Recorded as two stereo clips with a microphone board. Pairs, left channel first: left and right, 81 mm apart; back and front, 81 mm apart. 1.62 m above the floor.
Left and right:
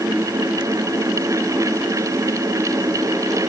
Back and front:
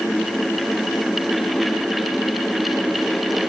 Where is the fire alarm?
I don't hear a fire alarm.